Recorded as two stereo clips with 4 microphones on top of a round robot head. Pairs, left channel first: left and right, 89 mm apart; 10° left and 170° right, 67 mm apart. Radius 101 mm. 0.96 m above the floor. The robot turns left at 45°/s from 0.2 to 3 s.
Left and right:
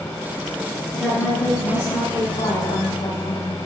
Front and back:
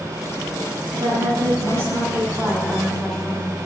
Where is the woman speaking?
175° right, 6.5 m; by 3.6 s 90° left, 6.5 m.